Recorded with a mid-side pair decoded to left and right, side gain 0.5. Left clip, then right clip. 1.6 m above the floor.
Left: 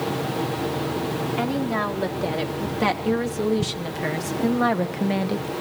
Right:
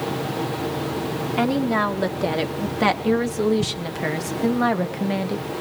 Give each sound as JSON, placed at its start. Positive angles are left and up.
{"t": 1.4, "sound": "a woman speaking", "azimuth_deg": -35, "distance_m": 3.5}